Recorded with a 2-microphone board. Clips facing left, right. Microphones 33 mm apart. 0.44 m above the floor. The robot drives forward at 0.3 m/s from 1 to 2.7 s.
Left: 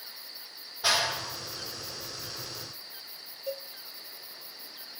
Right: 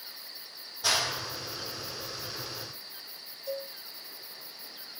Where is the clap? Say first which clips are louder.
Left 2 dB; 20° left (ahead or behind), 1.3 m; by 2.7 s 15° left (ahead or behind), 1.7 m.